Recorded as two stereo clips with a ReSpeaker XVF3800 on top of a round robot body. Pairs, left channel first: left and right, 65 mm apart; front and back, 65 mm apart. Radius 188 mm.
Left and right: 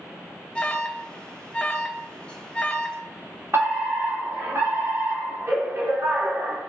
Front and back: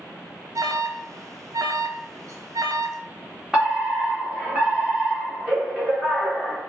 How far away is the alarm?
About 1.2 m.